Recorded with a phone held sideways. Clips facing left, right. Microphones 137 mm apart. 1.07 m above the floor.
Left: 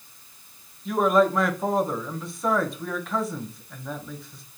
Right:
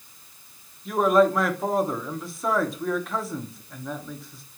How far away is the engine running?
I don't hear an engine running.